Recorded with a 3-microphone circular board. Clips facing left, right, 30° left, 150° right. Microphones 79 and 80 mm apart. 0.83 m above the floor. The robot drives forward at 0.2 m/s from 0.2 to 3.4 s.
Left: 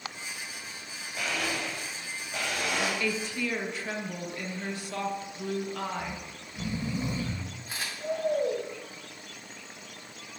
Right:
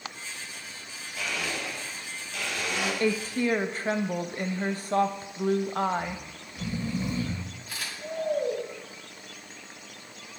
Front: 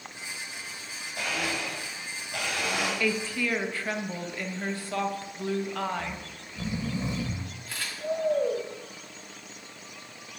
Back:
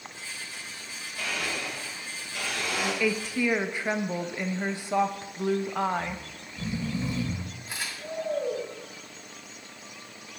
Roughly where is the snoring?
Ahead left.